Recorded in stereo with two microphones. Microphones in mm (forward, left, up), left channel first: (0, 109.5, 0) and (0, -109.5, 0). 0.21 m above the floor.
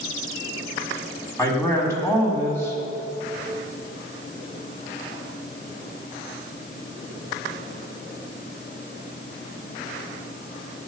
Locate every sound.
1.4 s a man speaking: 10° left (ahead or behind), 1.8 m